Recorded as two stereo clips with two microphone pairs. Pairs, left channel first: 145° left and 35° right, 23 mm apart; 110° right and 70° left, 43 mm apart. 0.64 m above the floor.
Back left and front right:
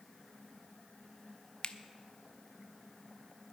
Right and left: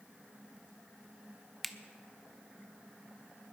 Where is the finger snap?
160° left, 0.6 m.